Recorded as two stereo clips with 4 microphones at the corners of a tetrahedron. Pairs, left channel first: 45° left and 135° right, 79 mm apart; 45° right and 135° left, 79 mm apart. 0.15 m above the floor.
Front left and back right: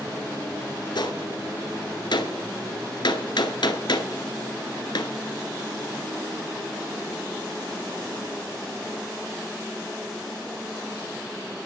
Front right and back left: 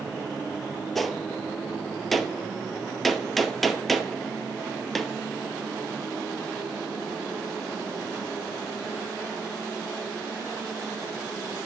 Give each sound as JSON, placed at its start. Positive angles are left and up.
{"t": 0.9, "sound": "a gunshot", "azimuth_deg": 45, "distance_m": 0.8}